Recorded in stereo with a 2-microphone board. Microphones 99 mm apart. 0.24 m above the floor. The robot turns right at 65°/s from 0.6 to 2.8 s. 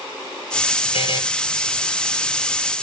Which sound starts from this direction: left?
A buzzer, at 0.9 s.